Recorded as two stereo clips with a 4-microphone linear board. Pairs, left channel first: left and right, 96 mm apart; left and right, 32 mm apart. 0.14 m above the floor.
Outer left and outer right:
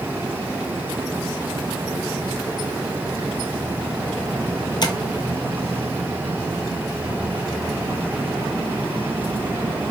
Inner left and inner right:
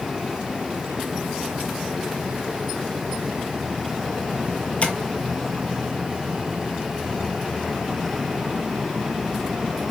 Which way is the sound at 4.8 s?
50° left (ahead or behind).